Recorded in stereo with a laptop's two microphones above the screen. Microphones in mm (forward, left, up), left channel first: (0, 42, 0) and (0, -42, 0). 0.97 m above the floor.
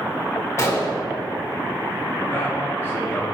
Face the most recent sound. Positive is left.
turn(degrees=30)  # may be behind; listen again after turning